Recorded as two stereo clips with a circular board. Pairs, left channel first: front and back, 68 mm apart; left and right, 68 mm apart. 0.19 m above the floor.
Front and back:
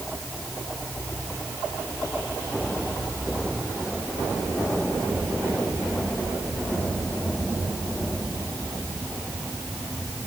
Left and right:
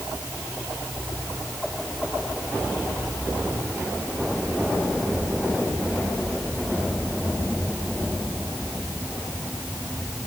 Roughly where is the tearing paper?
No tearing paper in this recording.